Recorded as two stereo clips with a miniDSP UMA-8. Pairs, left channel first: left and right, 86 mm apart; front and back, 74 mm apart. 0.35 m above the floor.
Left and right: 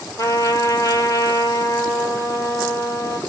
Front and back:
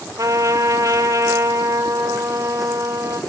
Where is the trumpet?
135° left, 1.3 m.